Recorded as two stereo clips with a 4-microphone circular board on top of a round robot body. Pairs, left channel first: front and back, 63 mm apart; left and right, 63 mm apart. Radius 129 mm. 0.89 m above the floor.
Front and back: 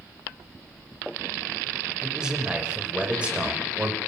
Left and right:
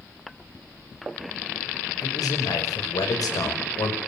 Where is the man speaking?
100° left, 5.5 m; by 4.0 s 110° left, 5 m.